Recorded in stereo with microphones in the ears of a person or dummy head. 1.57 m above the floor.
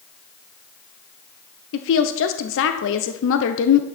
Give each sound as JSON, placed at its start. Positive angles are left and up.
{"t": 1.7, "sound": "a woman speaking", "side_deg": 75, "distance_m": 0.8}